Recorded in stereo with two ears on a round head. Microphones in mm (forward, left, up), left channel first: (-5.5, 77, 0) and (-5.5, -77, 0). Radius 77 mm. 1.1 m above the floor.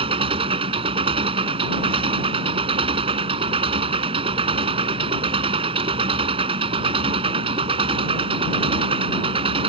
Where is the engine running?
35° right (ahead or behind).